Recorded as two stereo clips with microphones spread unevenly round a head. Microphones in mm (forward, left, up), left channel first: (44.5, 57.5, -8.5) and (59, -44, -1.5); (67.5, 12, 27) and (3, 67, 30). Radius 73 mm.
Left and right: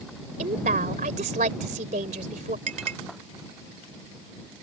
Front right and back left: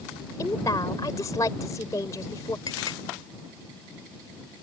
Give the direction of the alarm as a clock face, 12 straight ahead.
I don't hear an alarm.